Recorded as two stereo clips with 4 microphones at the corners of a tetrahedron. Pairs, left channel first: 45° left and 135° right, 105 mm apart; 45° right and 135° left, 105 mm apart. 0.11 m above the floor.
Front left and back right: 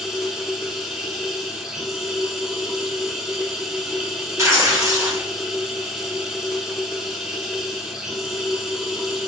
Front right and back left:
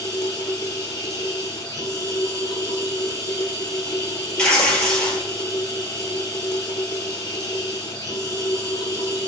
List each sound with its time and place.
0.0 s running water: 55° right, 0.8 m
4.4 s tearing paper: 120° right, 0.7 m